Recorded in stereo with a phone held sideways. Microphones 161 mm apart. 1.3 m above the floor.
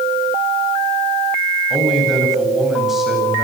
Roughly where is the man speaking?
Centre.